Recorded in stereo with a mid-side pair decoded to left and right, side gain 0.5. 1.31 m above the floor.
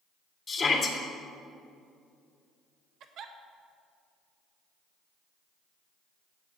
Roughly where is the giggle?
Ahead right.